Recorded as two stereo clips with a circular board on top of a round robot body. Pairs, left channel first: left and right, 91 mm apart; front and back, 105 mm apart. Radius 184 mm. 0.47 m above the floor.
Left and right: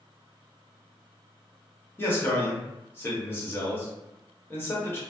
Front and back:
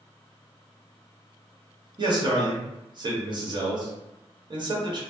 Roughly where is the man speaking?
Behind left.